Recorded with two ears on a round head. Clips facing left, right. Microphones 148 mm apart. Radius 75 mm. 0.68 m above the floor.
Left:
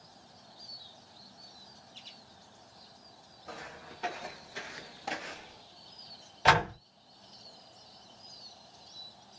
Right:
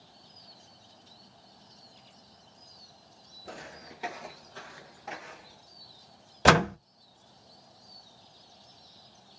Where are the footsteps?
40° right (ahead or behind), 0.8 m; by 5.6 s 50° left (ahead or behind), 1.0 m.